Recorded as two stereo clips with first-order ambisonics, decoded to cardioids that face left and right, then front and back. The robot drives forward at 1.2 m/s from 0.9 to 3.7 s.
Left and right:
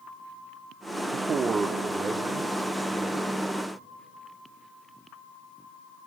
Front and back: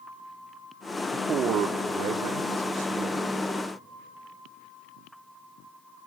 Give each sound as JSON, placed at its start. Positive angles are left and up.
{"t": 1.1, "sound": "a man speaking", "azimuth_deg": -115, "distance_m": 0.7}